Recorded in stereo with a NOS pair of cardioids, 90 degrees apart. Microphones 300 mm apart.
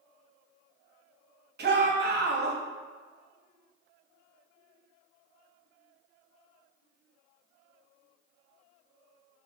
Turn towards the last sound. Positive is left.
turn(degrees=-35)